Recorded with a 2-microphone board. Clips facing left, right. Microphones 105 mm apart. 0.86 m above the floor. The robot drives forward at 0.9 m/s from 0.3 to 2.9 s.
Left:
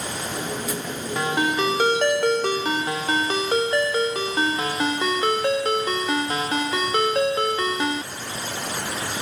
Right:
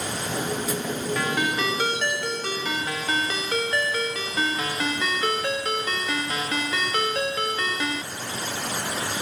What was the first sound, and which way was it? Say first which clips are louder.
A ringtone: left 6 dB; 25° left (ahead or behind).